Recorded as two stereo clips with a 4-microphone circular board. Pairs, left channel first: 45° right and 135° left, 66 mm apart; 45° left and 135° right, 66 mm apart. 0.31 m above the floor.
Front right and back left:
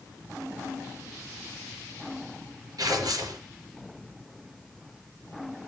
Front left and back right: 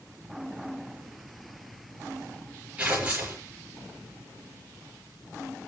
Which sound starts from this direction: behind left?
Tearing paper, at 2.8 s.